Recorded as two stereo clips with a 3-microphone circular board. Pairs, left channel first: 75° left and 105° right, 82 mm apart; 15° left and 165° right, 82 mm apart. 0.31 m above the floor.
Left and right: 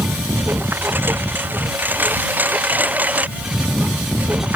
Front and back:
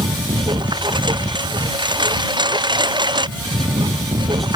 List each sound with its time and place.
0.0 s a lawn mower: 165° right; by 4.6 s 175° right